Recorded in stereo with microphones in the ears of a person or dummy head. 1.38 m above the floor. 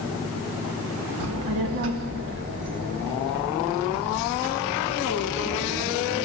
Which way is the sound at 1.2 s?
85° right.